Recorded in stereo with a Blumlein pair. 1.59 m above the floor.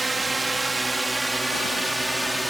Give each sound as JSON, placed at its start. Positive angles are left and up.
{"t": 0.0, "sound": "a drone", "azimuth_deg": -10}